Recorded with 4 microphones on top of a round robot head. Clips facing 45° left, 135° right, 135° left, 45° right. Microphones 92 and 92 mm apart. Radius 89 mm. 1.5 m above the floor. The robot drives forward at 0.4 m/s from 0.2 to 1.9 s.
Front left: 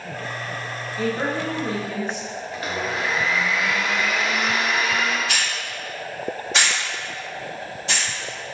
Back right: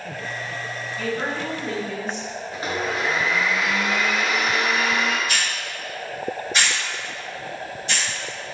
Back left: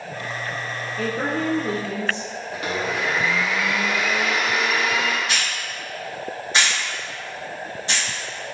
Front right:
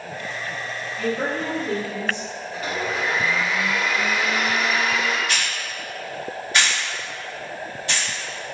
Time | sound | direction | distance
1.0 | a woman speaking | 100° left | 0.9 m
2.5 | a blender | 160° left | 0.5 m
5.3 | a hiss | 70° left | 0.9 m